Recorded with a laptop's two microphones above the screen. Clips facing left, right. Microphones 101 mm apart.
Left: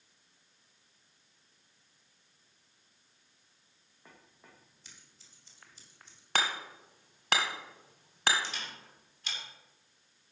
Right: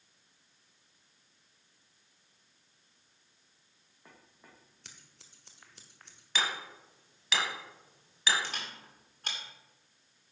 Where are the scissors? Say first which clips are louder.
Right 2 dB; 65° right (ahead or behind), 1.3 m.